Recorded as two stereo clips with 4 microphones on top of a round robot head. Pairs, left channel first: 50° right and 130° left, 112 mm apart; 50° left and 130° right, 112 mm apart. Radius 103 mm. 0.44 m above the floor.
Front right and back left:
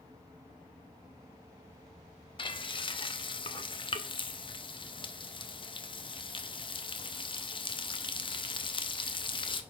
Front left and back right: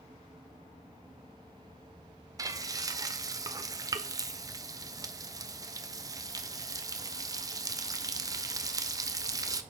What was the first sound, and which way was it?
Frying, 80° right.